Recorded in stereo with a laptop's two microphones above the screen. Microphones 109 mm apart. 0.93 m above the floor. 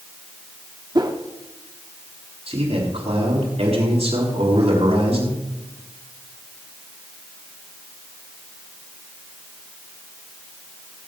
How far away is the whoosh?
About 1.3 m.